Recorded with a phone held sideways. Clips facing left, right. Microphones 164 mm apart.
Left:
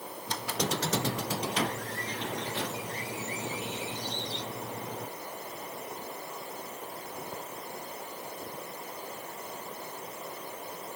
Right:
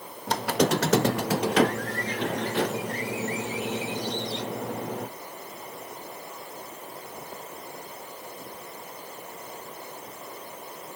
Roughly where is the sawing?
I don't hear sawing.